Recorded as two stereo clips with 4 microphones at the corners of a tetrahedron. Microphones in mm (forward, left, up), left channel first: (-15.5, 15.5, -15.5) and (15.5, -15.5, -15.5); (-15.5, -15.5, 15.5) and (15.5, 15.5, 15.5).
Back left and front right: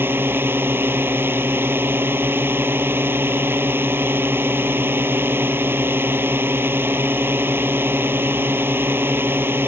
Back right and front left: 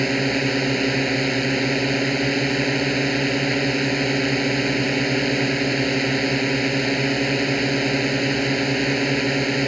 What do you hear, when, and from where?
0.0 s a drone: 45° right